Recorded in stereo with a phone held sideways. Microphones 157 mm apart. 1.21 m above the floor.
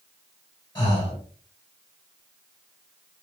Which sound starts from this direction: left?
Breathing, at 0.8 s.